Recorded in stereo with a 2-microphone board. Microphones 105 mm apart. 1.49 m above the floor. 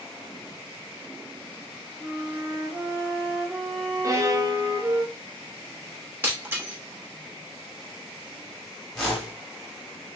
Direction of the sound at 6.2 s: 20° right (ahead or behind).